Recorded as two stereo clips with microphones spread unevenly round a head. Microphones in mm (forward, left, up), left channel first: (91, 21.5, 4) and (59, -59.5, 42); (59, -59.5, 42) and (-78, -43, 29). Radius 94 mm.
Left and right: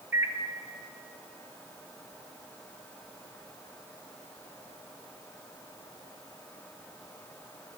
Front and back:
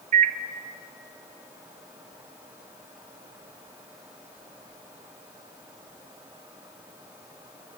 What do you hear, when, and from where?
0.1 s a microwave: 165° left, 0.6 m